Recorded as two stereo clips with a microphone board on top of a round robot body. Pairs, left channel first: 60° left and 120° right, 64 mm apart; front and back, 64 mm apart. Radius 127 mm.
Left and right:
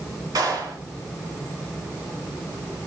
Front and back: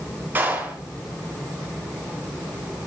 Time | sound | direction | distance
0.3 | a clap | 120° right | 6.5 m